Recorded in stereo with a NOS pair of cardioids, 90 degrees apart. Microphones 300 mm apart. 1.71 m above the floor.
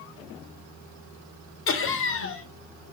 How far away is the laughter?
About 0.9 m.